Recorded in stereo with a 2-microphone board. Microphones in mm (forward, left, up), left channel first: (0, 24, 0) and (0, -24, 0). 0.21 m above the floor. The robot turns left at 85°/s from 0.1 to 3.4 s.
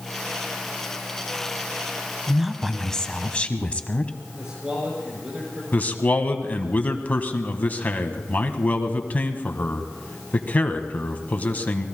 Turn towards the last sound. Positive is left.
turn(degrees=35)  # may be behind; listen again after turning